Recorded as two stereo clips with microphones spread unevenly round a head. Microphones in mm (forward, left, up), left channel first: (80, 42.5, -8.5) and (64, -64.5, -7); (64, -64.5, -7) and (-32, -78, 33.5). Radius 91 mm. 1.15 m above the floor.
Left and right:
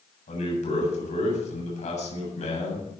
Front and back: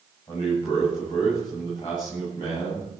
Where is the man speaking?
80° left, 7.5 m.